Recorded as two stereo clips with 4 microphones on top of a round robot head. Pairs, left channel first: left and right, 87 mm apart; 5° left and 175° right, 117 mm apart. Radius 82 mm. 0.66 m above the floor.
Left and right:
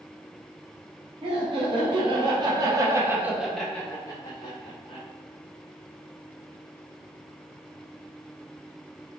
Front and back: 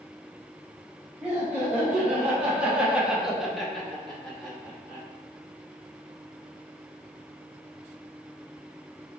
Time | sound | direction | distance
1.2 | laughter | 100° right | 1.4 m